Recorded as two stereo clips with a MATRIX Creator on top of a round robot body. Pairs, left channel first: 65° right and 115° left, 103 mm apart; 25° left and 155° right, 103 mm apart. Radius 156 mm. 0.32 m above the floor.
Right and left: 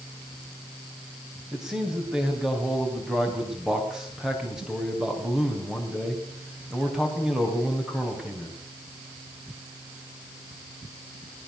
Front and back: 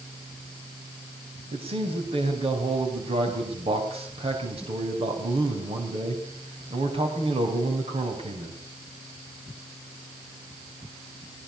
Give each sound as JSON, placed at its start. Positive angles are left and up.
{"t": 1.5, "sound": "a man speaking", "azimuth_deg": -165, "distance_m": 4.0}